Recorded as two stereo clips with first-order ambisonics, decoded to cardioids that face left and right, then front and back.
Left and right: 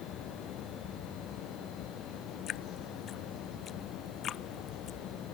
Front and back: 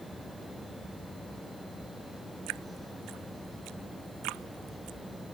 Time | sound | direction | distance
2.5 | dripping | 150° left | ?